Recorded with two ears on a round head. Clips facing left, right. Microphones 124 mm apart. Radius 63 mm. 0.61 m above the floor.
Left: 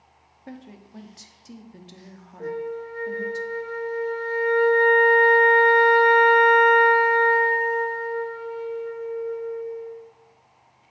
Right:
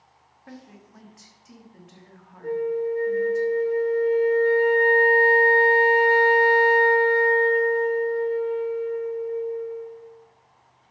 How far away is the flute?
About 2 m.